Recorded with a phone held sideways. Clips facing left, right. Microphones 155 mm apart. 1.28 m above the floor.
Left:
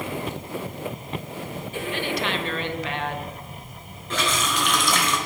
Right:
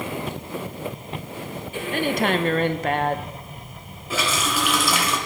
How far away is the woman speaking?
About 1.2 m.